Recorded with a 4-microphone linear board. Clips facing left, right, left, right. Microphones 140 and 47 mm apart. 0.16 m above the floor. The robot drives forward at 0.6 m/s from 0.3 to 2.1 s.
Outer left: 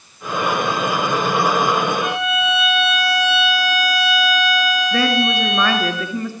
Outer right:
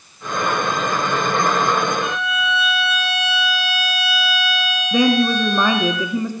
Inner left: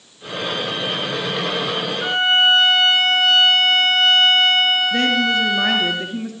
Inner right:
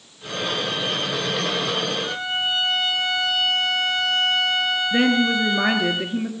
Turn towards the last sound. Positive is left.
turn(degrees=-15)  # may be behind; listen again after turning